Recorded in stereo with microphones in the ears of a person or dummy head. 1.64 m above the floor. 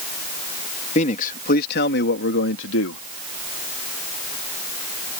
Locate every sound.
0.9 s a man speaking: 40° left (ahead or behind); by 3.0 s 80° left